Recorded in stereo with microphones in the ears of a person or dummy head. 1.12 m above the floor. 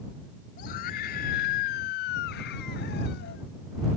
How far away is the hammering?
I don't hear hammering.